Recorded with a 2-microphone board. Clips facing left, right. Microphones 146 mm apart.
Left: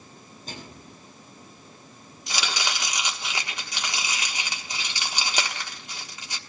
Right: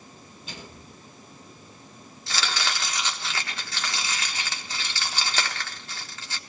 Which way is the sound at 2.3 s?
15° left (ahead or behind).